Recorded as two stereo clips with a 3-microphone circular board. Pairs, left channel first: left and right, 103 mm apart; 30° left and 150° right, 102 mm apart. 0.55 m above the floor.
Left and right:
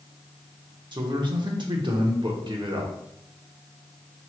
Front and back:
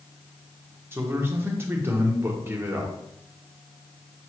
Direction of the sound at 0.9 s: 90° right.